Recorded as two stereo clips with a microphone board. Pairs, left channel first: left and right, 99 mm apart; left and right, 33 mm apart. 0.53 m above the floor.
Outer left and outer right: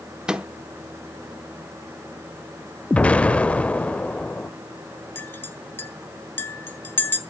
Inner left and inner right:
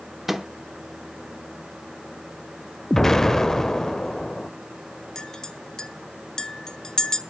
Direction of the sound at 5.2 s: 20° left (ahead or behind).